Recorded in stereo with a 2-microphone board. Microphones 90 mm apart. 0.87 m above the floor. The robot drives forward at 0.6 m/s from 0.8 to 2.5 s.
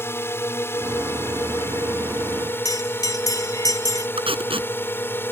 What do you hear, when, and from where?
0.0 s a drone: 30° left (ahead or behind); by 5.3 s 25° left (ahead or behind)
2.6 s a bell: 45° left (ahead or behind)
4.2 s tape being pulled: 85° right